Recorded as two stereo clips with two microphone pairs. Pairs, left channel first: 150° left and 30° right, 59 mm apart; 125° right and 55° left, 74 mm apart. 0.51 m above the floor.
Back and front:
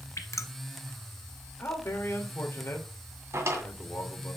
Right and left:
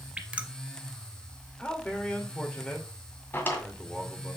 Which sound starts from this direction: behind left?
Dripping, at 0.2 s.